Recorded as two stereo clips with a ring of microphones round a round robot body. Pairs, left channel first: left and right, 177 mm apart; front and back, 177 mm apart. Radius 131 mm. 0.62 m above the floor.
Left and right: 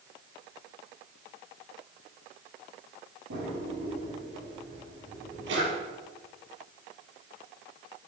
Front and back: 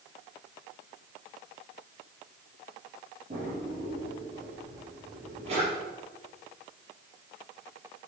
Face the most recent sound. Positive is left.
turn(degrees=-115)